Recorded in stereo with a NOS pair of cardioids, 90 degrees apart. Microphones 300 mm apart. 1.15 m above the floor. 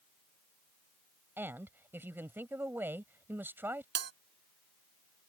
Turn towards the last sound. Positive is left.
turn(degrees=-50)